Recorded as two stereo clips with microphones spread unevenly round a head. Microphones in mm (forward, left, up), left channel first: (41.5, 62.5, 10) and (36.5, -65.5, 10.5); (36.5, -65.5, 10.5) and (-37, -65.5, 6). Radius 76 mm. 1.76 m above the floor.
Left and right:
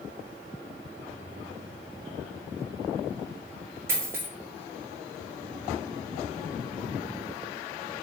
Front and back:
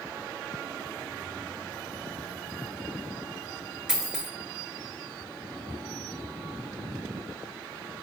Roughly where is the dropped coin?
Behind right.